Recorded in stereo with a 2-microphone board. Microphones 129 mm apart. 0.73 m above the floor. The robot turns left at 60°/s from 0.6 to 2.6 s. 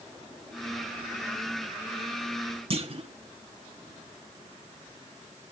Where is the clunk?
45° right (ahead or behind), 1.3 m.